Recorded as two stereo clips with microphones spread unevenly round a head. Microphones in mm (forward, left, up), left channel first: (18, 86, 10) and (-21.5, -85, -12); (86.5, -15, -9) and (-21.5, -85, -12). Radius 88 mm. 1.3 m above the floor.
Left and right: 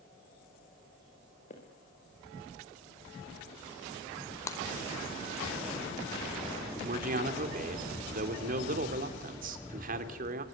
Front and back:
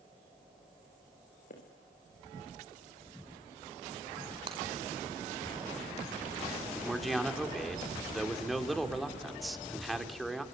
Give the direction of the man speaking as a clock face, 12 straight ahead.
2 o'clock.